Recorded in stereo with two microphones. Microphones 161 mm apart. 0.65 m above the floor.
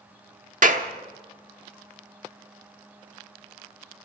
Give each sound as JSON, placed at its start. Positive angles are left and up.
{"t": 0.6, "sound": "a clap", "side_deg": -55, "distance_m": 1.2}